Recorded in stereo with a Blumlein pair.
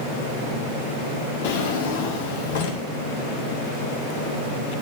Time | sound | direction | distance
1.4 | a drawer | 55° left | 1.9 m